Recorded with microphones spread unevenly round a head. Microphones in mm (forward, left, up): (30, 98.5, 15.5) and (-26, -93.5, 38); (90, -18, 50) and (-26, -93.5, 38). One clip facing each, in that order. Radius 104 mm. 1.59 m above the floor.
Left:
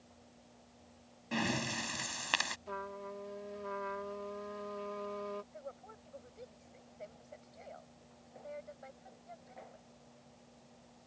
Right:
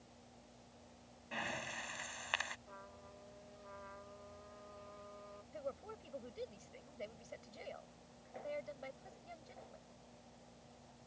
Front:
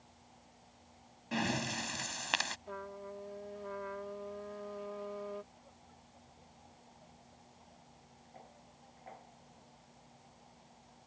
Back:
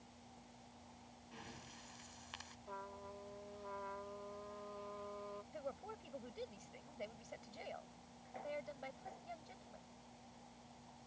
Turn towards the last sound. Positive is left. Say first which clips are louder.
# right 3 dB, back 12 dB
turn(degrees=-155)